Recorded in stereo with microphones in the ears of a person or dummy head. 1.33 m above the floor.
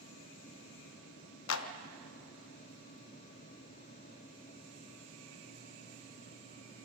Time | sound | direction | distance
1.5 | a clap | 85° left | 0.9 m